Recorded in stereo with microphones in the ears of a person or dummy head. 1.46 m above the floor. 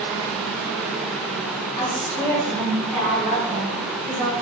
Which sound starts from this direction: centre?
A woman speaking, at 1.8 s.